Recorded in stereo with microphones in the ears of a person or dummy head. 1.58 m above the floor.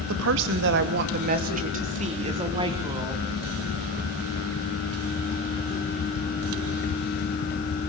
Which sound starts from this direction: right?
A woman speaking, at 0.1 s.